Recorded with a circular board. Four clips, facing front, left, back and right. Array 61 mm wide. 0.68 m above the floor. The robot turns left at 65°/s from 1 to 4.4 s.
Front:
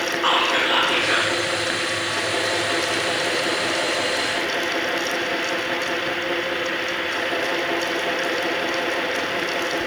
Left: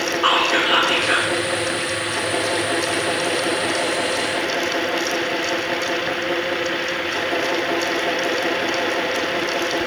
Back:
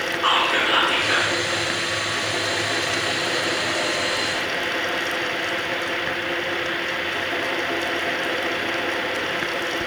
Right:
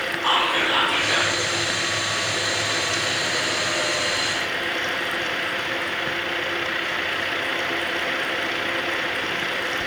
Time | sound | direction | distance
0.2 | whispering | 105° left | 1.4 m